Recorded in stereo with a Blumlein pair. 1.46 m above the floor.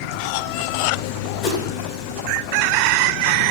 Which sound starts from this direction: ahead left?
A whoosh, at 1.4 s.